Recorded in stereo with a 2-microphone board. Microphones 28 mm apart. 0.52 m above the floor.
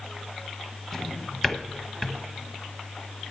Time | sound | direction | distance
0.9 | a drawer | 15° left (ahead or behind) | 1.1 m